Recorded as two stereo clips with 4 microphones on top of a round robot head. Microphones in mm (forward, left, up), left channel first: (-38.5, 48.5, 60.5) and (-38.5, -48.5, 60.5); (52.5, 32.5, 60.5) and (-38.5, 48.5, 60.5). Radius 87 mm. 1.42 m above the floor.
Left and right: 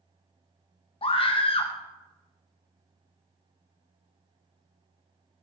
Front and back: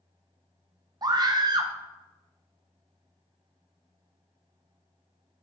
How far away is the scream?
About 1.4 m.